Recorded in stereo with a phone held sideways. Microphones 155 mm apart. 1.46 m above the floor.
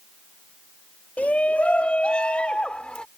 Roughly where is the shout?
Centre.